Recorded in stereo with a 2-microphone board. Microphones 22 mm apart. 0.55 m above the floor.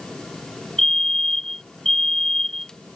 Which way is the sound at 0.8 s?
20° left (ahead or behind).